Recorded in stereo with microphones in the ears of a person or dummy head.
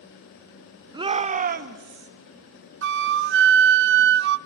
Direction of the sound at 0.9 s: 20° right (ahead or behind).